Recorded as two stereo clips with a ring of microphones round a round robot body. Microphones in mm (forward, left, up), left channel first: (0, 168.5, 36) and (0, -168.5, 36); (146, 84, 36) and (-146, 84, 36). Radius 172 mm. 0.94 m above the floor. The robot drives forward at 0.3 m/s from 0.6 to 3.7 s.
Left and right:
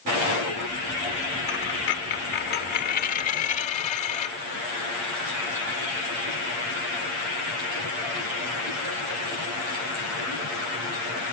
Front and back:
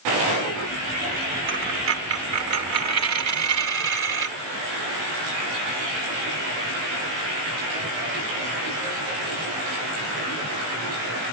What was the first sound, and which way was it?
A dropped coin, 135° left.